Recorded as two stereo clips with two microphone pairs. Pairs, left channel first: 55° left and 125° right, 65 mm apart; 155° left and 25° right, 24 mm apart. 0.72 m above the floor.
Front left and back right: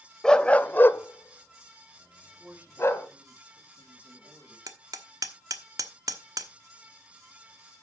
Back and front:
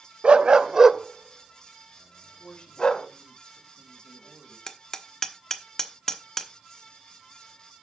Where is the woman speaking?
Straight behind, 3.5 m.